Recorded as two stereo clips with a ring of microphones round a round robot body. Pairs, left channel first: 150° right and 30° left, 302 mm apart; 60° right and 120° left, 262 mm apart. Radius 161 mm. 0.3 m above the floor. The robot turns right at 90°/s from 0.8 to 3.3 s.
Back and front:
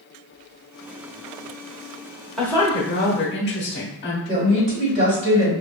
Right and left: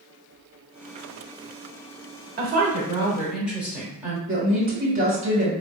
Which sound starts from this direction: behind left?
A woman speaking, at 2.4 s.